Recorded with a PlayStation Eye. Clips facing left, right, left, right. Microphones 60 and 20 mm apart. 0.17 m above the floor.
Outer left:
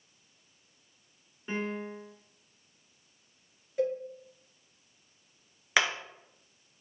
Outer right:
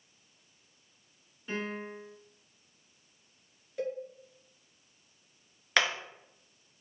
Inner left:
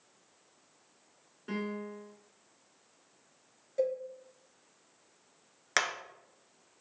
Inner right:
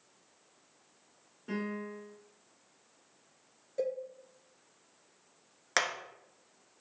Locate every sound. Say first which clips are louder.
1.5 s a piano: outer left 2 dB, even; 25° left (ahead or behind), 1.2 m
3.8 s a cowbell: outer left 5 dB, inner left 3 dB; 15° left (ahead or behind), 2 m
5.8 s hammering: outer left 1 dB, even; 5° left (ahead or behind), 0.7 m